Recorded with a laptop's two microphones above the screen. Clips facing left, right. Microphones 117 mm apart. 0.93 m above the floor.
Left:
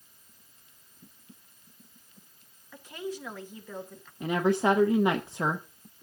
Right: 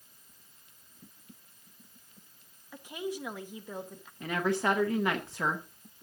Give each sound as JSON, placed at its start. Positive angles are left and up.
{"t": 2.7, "sound": "a woman speaking", "side_deg": -15, "distance_m": 1.0}
{"t": 4.2, "sound": "a woman speaking", "side_deg": 20, "distance_m": 0.6}